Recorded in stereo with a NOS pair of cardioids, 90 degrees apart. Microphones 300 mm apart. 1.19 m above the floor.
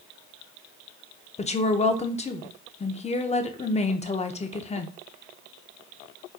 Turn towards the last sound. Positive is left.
turn(degrees=20)